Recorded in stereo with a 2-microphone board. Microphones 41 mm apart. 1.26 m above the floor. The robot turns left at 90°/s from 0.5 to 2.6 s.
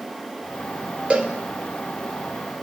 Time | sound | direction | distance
1.1 | a cowbell | 35° right (ahead or behind) | 3 m